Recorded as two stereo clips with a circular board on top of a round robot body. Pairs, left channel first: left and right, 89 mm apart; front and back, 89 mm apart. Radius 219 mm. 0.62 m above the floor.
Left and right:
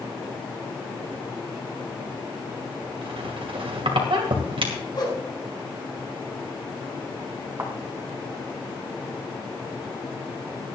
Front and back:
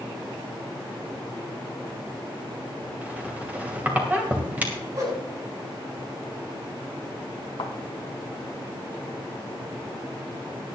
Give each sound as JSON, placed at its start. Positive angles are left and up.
{"t": 3.0, "sound": "a squeak", "azimuth_deg": -105, "distance_m": 2.5}
{"t": 4.9, "sound": "a whoosh", "azimuth_deg": 130, "distance_m": 6.5}
{"t": 7.6, "sound": "a thud", "azimuth_deg": -25, "distance_m": 1.4}